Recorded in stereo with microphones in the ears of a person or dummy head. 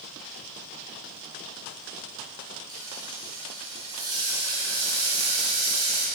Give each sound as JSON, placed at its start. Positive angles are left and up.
{"t": 2.7, "sound": "frying", "side_deg": -20, "distance_m": 1.4}